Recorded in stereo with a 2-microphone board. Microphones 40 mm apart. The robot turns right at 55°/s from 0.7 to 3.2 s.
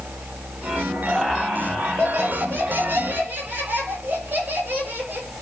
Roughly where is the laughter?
Behind.